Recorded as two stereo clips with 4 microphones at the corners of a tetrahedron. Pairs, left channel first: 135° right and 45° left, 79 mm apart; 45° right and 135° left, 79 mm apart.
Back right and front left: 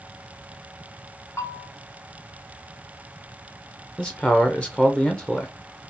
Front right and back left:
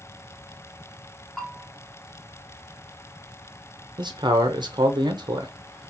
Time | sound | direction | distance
1.4 | a bell | 135° right | 1.0 m
4.0 | a man speaking | 150° left | 0.6 m